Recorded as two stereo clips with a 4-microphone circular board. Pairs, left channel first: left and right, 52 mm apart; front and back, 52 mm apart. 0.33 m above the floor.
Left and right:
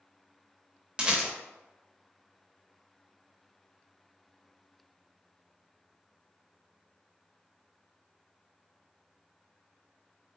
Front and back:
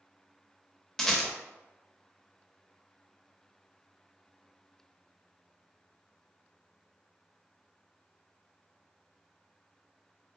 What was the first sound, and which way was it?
A rattle, 65° right.